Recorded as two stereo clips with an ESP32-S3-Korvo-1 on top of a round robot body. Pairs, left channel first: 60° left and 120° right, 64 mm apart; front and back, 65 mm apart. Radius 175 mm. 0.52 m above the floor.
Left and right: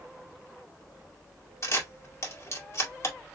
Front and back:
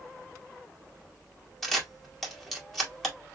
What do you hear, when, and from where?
1.6 s a camera shutter: 85° left, 1.8 m